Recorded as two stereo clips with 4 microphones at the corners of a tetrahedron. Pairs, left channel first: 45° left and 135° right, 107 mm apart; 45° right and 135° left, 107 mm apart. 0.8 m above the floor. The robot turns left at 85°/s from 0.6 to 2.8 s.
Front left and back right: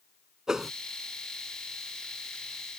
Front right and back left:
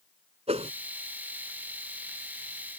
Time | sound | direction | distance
0.5 | a whoosh | 140° left | ?